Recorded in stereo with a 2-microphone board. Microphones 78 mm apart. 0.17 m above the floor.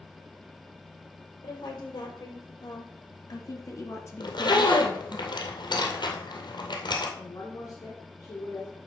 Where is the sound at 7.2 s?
45° left (ahead or behind), 2.5 m.